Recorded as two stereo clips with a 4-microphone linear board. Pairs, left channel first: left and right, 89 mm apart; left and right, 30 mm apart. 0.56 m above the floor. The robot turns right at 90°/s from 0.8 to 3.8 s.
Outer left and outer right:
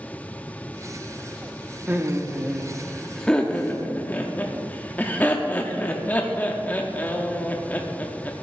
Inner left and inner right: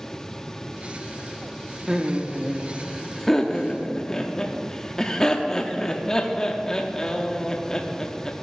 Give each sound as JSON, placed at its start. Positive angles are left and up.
{"t": 1.9, "sound": "laughter", "side_deg": -20, "distance_m": 0.7}